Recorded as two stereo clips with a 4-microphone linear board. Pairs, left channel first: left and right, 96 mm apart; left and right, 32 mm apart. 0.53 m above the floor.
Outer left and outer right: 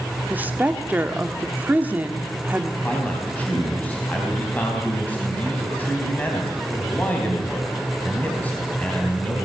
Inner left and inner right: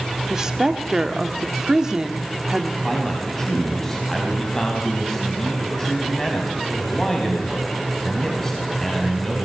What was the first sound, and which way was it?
A woman speaking, 20° right (ahead or behind).